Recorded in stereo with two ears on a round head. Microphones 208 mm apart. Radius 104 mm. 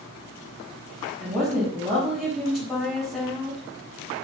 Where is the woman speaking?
Centre (ahead or behind), 4.5 m.